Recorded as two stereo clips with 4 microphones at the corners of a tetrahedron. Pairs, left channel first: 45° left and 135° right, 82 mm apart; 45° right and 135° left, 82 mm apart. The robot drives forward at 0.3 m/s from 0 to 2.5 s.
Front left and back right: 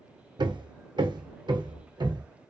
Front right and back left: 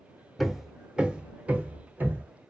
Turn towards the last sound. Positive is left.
turn(degrees=-160)